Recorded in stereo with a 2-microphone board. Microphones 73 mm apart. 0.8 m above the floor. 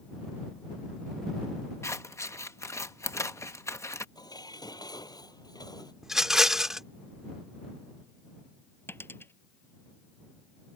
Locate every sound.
1.8 s scissors: 40° left (ahead or behind)
4.2 s dishes clattering: 65° left (ahead or behind)
6.0 s a rattle: 5° right (ahead or behind)
8.9 s a dropped coin: 30° left (ahead or behind)